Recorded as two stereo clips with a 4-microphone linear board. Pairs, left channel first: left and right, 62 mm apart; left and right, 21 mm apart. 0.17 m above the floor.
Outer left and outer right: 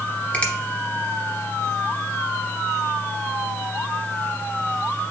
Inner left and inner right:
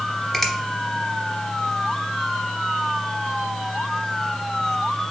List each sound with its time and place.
0.3 s a finger snap: 25° left (ahead or behind), 0.9 m